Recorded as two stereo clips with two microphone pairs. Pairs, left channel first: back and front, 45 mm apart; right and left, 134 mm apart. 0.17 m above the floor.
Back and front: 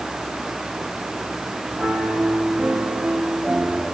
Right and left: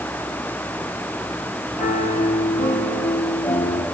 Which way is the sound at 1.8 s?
90° right.